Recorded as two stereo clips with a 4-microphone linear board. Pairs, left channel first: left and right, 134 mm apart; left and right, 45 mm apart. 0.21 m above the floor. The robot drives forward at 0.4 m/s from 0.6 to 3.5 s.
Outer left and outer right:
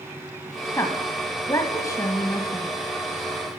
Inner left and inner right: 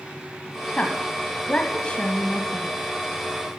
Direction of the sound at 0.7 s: 20° left (ahead or behind).